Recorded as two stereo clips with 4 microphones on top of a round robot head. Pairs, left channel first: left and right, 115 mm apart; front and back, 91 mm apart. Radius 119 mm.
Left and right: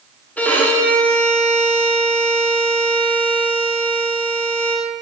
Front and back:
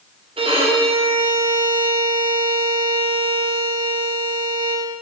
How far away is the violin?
About 1.1 m.